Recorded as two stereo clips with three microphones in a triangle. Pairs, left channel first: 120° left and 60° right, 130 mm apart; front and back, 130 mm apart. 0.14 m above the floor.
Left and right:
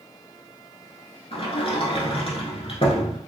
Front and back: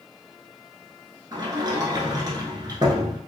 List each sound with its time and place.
1.3 s a sliding door: 135° left, 0.9 m